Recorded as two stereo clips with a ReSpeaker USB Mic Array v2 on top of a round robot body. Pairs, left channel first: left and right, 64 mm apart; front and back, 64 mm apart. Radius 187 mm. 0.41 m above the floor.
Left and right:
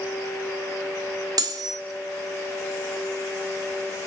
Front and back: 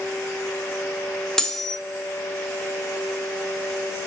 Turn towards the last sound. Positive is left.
turn(degrees=-80)